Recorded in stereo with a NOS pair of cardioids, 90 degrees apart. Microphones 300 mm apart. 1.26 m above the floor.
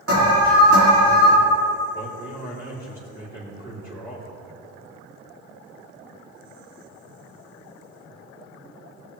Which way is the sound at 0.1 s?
50° right.